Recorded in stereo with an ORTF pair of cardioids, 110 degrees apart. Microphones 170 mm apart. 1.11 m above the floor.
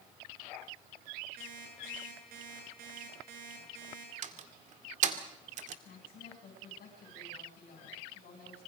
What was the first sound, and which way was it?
An alarm clock, 65° right.